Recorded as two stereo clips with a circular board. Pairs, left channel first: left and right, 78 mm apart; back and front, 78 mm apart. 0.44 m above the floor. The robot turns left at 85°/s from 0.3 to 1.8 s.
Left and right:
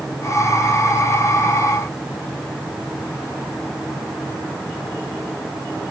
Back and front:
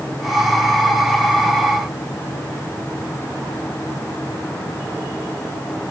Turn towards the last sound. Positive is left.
No sound to turn to.